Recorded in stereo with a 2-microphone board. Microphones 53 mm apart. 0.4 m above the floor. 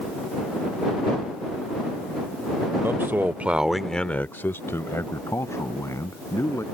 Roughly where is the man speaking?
Right.